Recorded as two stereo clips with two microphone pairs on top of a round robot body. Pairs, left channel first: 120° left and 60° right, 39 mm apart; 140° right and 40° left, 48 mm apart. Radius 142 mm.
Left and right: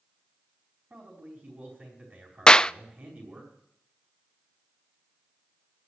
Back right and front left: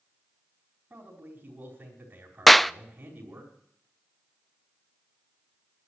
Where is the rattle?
I don't hear a rattle.